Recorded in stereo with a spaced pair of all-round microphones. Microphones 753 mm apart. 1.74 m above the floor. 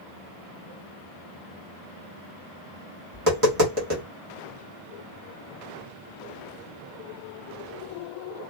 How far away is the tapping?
About 1.6 m.